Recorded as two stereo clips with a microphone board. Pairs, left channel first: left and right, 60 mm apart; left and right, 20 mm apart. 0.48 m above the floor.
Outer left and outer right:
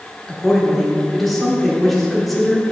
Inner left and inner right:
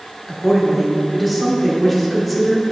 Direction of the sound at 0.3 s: Centre (ahead or behind).